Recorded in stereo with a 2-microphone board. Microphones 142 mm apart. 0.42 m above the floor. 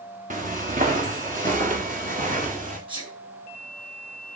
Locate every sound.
0.3 s footsteps: 65° right (ahead or behind), 2 m; by 2.8 s 70° right (ahead or behind), 4.5 m
2.9 s a sneeze: 35° right (ahead or behind), 5 m